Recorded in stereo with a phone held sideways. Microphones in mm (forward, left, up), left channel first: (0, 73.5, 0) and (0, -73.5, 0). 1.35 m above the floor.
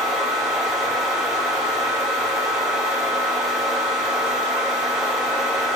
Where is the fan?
5° right (ahead or behind), 5.5 m.